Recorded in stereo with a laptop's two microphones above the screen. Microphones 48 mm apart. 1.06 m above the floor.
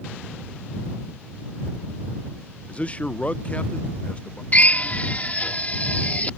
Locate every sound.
2.7 s a man speaking: 25° left (ahead or behind)
4.5 s a drill: 35° left (ahead or behind)